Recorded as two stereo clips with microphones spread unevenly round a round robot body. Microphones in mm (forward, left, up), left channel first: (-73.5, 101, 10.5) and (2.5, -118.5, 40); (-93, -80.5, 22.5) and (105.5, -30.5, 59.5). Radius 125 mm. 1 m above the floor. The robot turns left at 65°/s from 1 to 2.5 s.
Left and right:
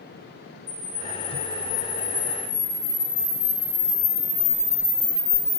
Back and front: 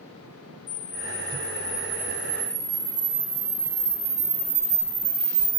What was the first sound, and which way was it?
A camera shutter, 175° left.